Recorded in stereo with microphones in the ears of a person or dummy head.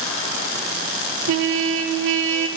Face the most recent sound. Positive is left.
turn(degrees=-70)  # may be behind; listen again after turning